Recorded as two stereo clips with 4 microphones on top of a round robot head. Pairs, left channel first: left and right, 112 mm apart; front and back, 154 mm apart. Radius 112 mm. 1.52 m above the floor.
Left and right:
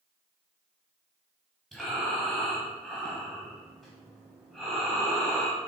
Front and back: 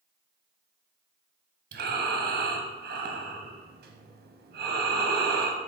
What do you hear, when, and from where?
1.7 s breathing: 175° left, 0.9 m